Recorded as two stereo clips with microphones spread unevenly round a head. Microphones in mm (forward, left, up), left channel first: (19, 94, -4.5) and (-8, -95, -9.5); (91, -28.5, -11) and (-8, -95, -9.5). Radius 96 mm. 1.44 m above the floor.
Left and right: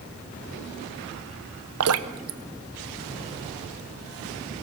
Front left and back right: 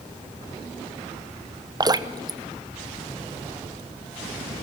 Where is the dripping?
90° right, 0.9 m.